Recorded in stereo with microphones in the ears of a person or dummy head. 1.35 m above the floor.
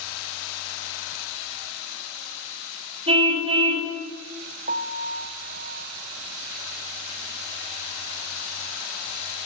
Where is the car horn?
35° right (ahead or behind), 2.5 m.